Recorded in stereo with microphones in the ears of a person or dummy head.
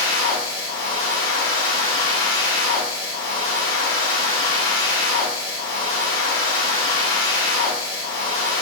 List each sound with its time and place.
0.0 s a machine running: 45° left (ahead or behind), 1.6 m